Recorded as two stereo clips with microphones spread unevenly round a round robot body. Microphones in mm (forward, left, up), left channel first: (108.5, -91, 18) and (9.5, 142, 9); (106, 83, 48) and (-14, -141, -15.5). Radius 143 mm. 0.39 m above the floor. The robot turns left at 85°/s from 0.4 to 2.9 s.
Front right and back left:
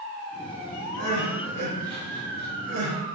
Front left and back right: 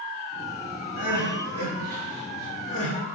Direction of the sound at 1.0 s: 95° right.